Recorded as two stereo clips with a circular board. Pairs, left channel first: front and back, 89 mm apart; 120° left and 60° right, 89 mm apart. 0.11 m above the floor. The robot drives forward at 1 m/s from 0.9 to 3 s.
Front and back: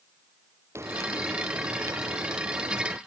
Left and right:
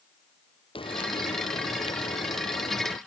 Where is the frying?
120° left; by 3.0 s 130° left.